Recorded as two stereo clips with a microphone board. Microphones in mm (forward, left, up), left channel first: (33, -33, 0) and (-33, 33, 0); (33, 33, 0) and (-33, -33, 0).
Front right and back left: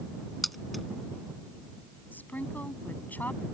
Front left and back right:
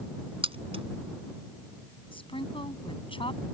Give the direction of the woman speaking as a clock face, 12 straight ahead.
11 o'clock.